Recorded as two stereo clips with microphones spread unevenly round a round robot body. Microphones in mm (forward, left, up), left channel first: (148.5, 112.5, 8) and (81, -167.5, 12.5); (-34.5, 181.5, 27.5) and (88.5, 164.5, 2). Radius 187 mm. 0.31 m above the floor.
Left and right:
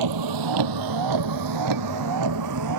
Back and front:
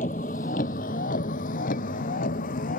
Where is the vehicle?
125° right; by 2.8 s 150° right.